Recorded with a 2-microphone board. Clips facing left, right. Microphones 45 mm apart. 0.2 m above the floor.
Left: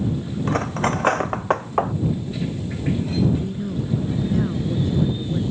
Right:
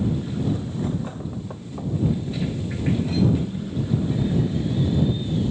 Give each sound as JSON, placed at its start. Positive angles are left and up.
{"t": 0.5, "sound": "cutlery clinking", "side_deg": 85}
{"t": 3.4, "sound": "a woman speaking", "side_deg": 60}